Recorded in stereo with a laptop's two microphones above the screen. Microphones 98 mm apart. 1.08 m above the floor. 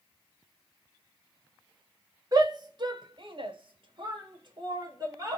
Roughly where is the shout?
Right.